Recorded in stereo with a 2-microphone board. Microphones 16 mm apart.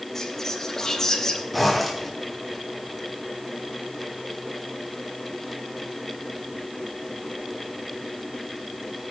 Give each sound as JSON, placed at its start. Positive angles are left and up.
{"t": 0.1, "sound": "whispering", "side_deg": 30, "distance_m": 3.0}
{"t": 1.5, "sound": "a zipper", "side_deg": 0, "distance_m": 3.0}